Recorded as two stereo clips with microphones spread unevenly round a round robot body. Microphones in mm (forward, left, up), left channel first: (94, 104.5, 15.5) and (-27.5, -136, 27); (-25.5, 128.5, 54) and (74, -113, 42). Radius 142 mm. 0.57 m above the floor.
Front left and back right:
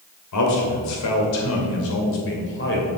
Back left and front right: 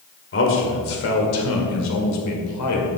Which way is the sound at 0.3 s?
70° left.